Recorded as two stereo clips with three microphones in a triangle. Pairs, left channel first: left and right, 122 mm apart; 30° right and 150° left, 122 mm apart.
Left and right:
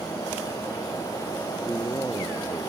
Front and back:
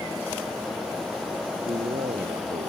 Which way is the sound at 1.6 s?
160° left.